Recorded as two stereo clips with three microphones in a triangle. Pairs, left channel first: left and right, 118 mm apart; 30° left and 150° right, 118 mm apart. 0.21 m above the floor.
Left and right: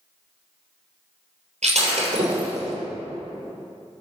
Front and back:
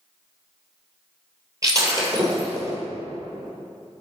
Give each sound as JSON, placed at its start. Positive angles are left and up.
{"t": 1.6, "sound": "breaking glass", "azimuth_deg": -90, "distance_m": 3.0}